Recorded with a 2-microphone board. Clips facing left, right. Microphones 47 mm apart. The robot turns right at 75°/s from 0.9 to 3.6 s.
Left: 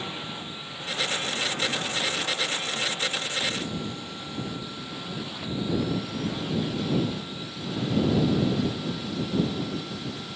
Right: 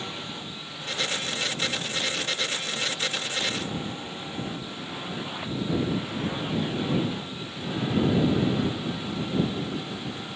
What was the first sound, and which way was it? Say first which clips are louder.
A drone: left 1 dB; 5° left (ahead or behind).